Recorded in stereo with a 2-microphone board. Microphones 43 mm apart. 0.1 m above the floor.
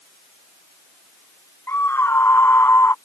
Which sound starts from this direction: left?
A scream, at 1.7 s.